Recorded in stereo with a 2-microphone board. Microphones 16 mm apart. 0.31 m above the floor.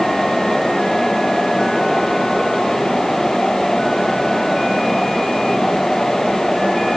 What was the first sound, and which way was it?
Only background noise.